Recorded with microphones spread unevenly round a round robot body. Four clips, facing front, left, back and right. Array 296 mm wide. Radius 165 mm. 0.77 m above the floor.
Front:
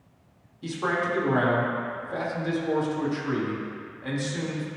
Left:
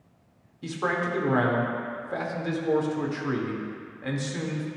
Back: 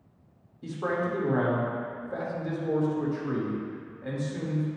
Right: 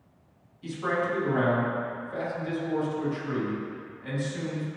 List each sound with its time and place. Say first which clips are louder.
0.6 s a man speaking: even, front 2 dB; 65° left, 1.6 m